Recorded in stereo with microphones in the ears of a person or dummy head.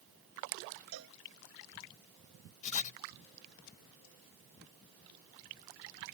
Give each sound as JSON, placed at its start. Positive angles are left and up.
{"t": 0.9, "sound": "a cowbell", "side_deg": -85}
{"t": 2.6, "sound": "writing", "side_deg": 35}